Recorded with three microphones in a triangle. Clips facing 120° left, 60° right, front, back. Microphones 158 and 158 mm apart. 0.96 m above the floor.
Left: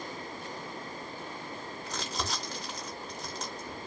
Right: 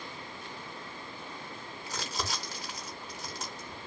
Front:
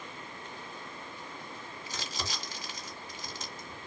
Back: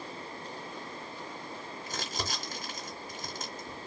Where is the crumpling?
145° right, 3 m.